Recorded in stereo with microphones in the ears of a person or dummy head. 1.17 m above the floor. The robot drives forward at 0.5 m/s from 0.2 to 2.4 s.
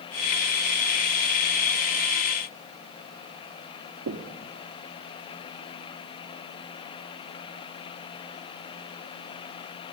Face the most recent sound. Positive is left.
turn(degrees=-70)  # may be behind; listen again after turning